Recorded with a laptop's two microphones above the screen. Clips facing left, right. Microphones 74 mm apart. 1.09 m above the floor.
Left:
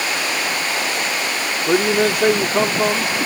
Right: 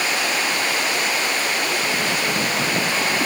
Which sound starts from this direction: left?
A man speaking, at 1.7 s.